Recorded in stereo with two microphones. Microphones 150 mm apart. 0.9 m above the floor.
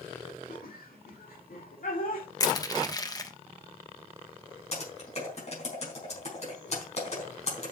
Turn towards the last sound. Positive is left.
turn(degrees=45)  # may be behind; listen again after turning